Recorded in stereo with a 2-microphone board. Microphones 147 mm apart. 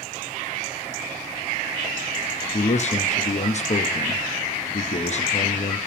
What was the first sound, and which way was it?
A man speaking, 50° left (ahead or behind).